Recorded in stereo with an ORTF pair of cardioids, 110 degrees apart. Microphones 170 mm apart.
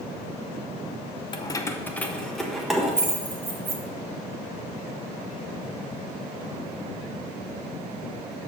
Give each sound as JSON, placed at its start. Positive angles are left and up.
{"t": 1.3, "sound": "keys jangling", "azimuth_deg": 30, "distance_m": 0.6}